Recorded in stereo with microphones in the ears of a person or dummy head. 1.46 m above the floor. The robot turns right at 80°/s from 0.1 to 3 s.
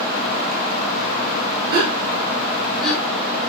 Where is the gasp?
55° right (ahead or behind), 1.1 m; by 3.5 s 10° left (ahead or behind), 1.1 m.